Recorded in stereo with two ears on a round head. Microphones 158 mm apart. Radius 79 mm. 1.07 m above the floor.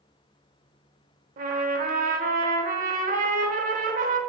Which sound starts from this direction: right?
A trumpet, at 1.4 s.